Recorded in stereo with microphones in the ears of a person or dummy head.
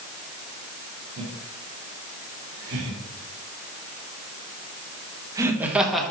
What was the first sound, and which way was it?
Laughter, 85° right.